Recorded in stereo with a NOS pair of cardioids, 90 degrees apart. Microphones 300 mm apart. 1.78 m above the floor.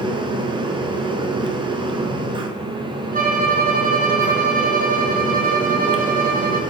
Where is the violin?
30° right, 1.0 m.